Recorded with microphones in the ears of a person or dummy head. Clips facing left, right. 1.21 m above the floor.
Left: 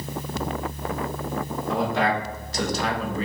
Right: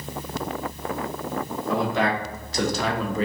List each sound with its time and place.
1.7 s a man speaking: 65° right (ahead or behind), 1.4 m; by 3.2 s 50° right (ahead or behind), 0.6 m